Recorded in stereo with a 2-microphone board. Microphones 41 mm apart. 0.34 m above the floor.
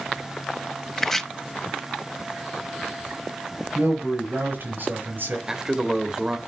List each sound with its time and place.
1.0 s chopping: 10° left (ahead or behind), 0.7 m
3.8 s a man speaking: 50° right (ahead or behind), 6 m
5.5 s a man speaking: 15° right (ahead or behind), 1.2 m